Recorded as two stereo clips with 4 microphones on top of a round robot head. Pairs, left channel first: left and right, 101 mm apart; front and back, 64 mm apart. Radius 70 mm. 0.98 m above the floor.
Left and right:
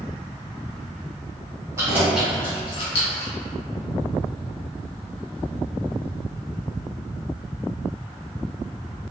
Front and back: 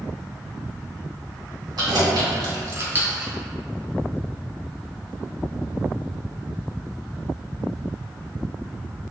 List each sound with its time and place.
1.8 s keys jangling: 160° right, 1.4 m; by 3.3 s 100° left, 1.2 m